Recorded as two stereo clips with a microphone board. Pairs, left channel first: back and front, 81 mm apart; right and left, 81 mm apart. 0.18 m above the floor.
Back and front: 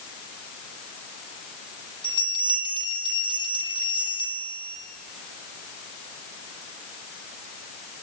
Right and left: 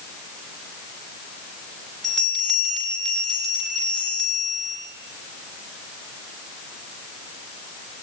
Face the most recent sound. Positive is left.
turn(degrees=180)